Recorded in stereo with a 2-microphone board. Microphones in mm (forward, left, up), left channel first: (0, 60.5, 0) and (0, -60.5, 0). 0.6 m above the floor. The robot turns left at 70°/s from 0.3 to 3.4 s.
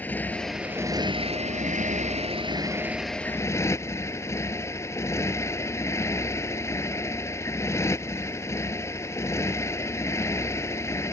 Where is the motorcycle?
15° left; by 11.1 s 155° left.